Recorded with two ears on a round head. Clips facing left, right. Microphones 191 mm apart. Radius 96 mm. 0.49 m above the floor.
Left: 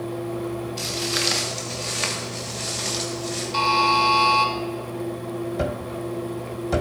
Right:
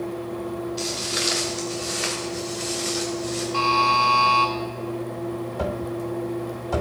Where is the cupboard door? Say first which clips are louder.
Even; 25° left (ahead or behind), 0.8 m.